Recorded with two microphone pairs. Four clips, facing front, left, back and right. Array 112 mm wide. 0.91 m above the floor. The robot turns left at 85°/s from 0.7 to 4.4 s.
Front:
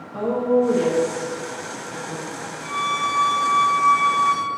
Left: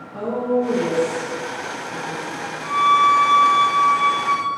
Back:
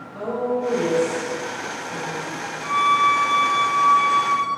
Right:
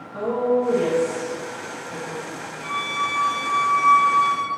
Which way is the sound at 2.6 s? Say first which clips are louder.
Left 12 dB, back 6 dB; 160° left.